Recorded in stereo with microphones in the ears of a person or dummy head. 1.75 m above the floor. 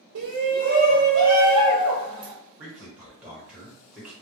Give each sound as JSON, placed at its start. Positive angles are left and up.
{"t": 0.1, "sound": "a shout", "side_deg": -70, "distance_m": 0.5}
{"t": 2.6, "sound": "a man speaking", "side_deg": -5, "distance_m": 1.3}